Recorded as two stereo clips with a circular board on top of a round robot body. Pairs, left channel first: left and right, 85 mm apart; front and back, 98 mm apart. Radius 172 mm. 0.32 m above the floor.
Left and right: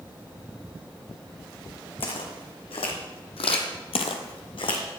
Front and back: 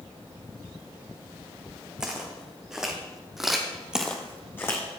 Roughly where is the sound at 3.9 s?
Left.